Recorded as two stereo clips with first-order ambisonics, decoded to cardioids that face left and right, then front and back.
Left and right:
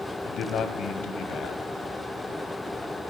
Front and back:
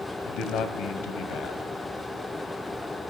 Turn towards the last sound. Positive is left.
turn(degrees=40)